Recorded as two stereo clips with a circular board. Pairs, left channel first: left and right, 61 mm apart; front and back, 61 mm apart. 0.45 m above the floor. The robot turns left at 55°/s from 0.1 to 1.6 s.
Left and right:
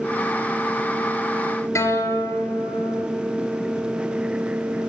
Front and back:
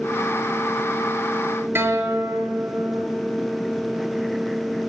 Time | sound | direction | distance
1.8 | a guitar | 130° left | 7 m